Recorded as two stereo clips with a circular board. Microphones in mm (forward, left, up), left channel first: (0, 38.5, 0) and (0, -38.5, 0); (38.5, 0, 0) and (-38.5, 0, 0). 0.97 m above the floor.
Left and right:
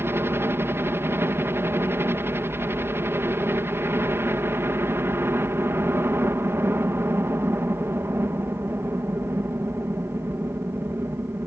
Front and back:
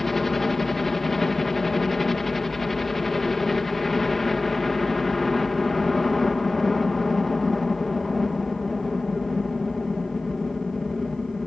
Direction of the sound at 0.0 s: 85° right.